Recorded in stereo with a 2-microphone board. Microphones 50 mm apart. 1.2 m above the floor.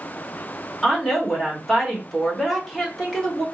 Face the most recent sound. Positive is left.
turn(degrees=10)  # may be behind; listen again after turning